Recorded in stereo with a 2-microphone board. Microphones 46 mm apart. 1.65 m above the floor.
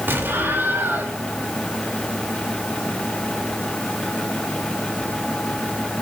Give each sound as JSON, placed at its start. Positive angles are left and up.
{"t": 0.1, "sound": "an explosion", "side_deg": -55, "distance_m": 2.5}